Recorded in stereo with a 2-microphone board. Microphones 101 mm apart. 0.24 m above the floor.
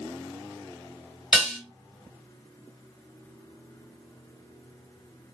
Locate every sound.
1.3 s dishes clattering: 5° right (ahead or behind), 1.5 m